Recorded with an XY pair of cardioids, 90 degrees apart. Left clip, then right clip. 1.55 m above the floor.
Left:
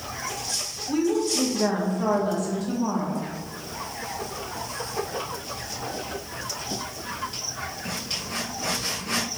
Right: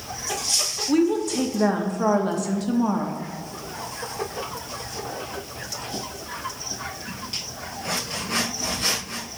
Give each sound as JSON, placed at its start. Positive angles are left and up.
{"t": 0.9, "sound": "a woman speaking", "azimuth_deg": -45, "distance_m": 0.6}